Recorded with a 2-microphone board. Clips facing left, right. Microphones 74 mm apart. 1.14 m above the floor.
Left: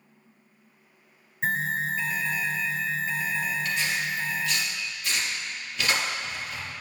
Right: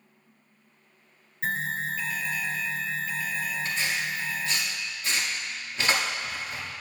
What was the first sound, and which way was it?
An alarm, 25° left (ahead or behind).